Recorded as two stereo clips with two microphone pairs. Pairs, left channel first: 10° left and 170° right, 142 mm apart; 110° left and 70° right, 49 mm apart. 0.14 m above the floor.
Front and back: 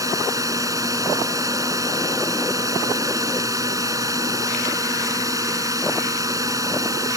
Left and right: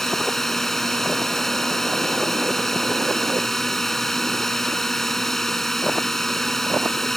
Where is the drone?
175° right.